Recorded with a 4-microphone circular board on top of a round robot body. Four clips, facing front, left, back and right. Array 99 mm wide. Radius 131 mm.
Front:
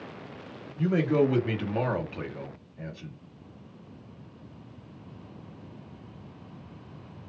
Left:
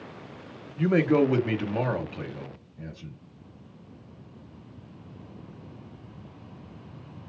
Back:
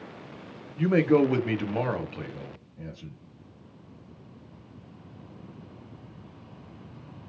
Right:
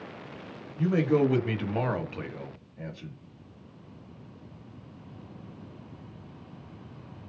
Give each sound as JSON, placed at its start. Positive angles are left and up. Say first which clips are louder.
{"t": 0.8, "sound": "a man speaking", "louder": "left 2 dB, back 3 dB", "azimuth_deg": 145, "distance_m": 1.5}